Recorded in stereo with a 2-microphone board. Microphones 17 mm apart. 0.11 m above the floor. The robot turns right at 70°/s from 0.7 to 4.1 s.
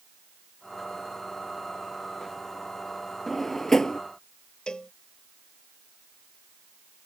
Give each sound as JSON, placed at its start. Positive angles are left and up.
{"t": 3.3, "sound": "a drawer", "side_deg": 5}
{"t": 4.7, "sound": "a cowbell", "side_deg": 55}